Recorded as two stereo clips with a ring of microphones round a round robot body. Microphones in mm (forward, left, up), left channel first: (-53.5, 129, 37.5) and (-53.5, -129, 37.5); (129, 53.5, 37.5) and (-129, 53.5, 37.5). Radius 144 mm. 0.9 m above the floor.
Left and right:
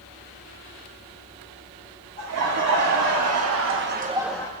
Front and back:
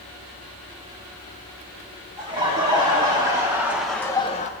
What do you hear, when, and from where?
2.2 s laughter: 110° right, 3 m; by 4.5 s 35° left, 0.8 m